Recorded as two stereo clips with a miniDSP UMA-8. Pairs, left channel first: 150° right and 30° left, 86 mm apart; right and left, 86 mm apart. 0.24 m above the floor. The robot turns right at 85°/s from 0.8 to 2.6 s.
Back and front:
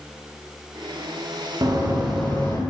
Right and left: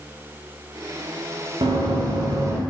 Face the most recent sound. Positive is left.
turn(degrees=160)